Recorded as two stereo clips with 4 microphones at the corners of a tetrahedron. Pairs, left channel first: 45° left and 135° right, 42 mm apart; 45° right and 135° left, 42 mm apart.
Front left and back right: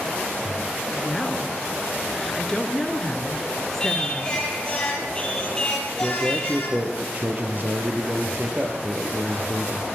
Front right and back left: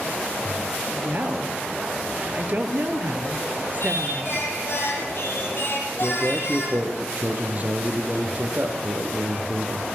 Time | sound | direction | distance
0.9 | a woman speaking | 125° left | 2 m
3.8 | singing | 25° right | 4.5 m
6.0 | a man speaking | straight behind | 3 m